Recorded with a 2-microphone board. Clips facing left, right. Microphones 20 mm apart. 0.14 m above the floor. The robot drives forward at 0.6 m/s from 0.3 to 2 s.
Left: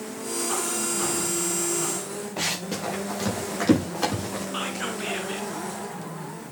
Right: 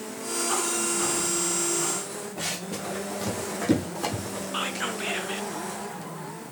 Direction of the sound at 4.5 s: 10° right (ahead or behind).